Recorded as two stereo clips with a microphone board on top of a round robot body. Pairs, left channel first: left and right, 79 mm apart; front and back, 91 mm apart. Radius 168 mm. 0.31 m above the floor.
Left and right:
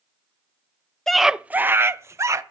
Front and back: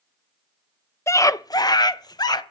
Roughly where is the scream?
Ahead.